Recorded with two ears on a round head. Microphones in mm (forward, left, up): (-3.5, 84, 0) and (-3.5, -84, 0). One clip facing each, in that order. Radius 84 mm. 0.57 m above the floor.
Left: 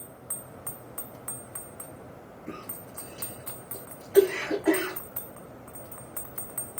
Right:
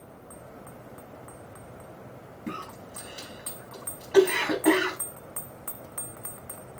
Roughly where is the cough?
Right.